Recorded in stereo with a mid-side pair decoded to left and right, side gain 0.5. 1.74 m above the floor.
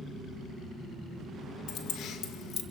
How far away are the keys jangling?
About 1.8 m.